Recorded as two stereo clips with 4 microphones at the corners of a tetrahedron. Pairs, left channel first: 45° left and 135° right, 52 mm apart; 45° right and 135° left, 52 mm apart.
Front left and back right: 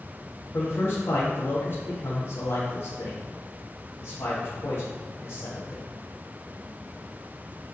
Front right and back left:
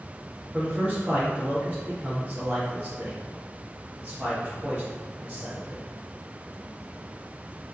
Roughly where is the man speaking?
Left.